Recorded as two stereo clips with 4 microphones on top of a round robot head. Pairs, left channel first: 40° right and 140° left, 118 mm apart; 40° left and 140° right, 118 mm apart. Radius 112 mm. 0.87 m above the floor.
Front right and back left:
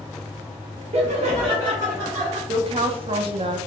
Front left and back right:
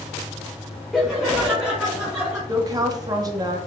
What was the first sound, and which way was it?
Laughter, 130° left.